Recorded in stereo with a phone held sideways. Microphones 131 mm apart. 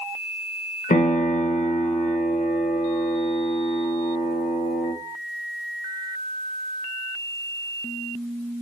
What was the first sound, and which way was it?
A piano, 75° left (ahead or behind).